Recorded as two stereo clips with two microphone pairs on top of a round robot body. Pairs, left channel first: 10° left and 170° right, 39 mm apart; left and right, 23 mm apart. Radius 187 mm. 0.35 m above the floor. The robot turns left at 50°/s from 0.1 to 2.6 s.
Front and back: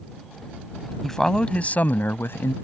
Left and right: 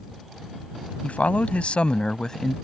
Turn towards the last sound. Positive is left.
turn(degrees=15)